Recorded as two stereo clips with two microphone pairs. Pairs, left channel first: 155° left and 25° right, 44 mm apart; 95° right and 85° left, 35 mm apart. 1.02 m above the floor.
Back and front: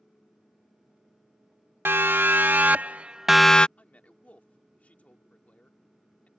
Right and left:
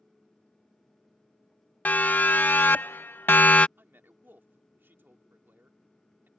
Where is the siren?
55° right; by 3.7 s 140° right.